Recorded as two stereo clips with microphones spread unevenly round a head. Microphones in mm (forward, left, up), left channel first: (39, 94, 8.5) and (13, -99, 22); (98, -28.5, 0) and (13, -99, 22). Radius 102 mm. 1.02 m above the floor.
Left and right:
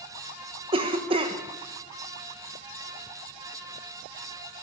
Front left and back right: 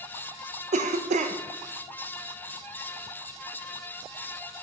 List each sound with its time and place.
0.7 s a cough: 160° right, 0.6 m